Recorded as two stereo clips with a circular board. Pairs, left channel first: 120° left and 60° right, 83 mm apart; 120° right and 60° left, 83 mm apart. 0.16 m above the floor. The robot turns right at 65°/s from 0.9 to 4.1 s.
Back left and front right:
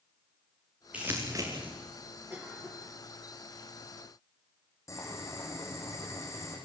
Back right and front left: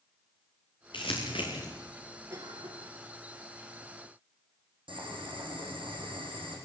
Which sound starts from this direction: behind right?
Crumpling, at 0.9 s.